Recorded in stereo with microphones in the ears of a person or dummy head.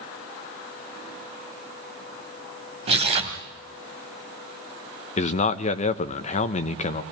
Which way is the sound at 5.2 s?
35° left (ahead or behind).